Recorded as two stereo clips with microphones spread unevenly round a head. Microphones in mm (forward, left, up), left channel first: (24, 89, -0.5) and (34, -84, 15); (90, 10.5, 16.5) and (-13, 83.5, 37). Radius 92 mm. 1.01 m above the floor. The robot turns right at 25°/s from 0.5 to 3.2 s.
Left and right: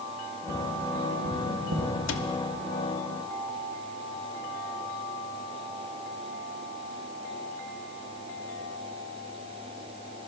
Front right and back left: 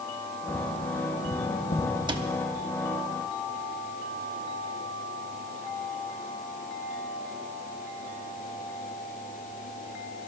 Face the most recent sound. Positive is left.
turn(degrees=125)